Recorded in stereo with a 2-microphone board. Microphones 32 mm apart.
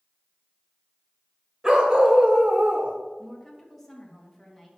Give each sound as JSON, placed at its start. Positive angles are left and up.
{"t": 1.6, "sound": "a dog barking", "side_deg": -25, "distance_m": 2.0}
{"t": 3.2, "sound": "a woman speaking", "side_deg": 0, "distance_m": 2.5}